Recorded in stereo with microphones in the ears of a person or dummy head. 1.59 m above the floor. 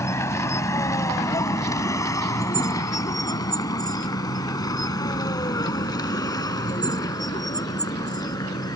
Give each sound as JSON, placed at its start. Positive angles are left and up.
{"t": 0.0, "sound": "a vehicle", "side_deg": 15}